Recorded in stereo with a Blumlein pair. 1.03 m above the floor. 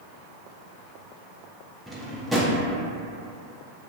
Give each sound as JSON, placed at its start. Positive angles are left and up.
{"t": 1.9, "sound": "a drawer", "azimuth_deg": -5, "distance_m": 0.5}